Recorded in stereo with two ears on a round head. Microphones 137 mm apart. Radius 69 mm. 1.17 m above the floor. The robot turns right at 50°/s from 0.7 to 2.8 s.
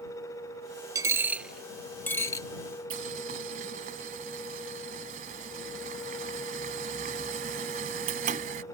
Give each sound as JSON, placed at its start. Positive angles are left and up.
{"t": 0.9, "sound": "a dropped coin", "side_deg": -20}
{"t": 2.9, "sound": "boiling", "side_deg": -55}